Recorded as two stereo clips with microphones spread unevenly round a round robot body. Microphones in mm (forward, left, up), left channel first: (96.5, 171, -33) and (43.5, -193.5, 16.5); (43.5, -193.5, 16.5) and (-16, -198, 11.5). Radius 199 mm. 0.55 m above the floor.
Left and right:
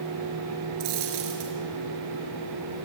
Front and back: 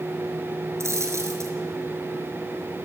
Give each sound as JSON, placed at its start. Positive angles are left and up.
{"t": 0.8, "sound": "a dropped coin", "azimuth_deg": -135, "distance_m": 4.0}